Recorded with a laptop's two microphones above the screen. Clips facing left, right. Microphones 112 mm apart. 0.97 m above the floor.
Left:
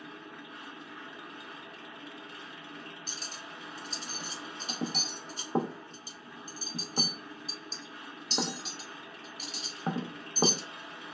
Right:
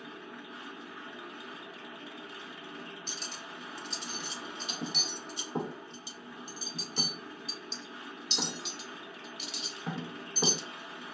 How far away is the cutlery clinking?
About 0.5 m.